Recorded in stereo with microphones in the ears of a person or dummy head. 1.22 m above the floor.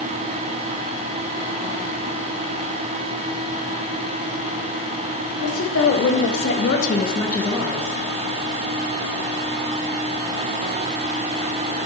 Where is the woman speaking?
80° left, 3 m; by 7.9 s 35° right (ahead or behind), 1.5 m.